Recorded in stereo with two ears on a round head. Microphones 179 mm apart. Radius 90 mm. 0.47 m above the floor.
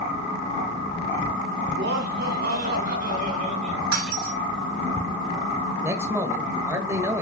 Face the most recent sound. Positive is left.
turn(degrees=-15)  # may be behind; listen again after turning